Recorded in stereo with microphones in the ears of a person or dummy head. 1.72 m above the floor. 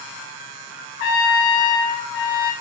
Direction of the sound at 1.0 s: 75° left (ahead or behind).